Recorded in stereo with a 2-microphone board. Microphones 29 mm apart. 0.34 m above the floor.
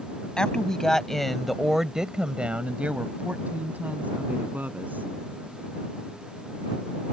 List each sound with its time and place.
0.4 s a woman speaking: 25° left (ahead or behind); by 5.1 s 75° right (ahead or behind)